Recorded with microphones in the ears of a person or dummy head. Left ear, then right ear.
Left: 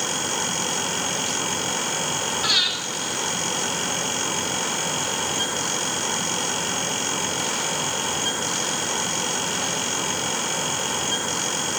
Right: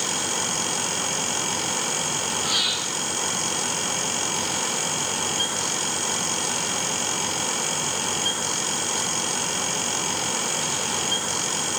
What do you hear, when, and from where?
0.0 s a fan: 5° right (ahead or behind), 0.9 m
2.4 s breathing: 70° left (ahead or behind), 4.5 m